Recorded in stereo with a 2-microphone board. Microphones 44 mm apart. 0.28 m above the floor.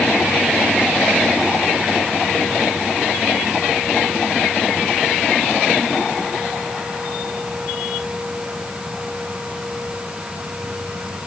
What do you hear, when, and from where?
Only background noise.